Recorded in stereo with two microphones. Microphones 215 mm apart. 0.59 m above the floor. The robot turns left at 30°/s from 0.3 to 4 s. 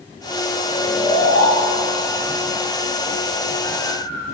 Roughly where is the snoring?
Left.